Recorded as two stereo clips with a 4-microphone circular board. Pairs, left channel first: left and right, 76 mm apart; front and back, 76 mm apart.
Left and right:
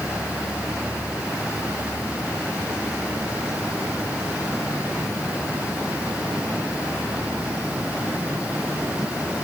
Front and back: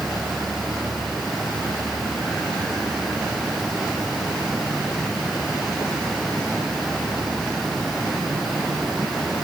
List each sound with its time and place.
Only background noise.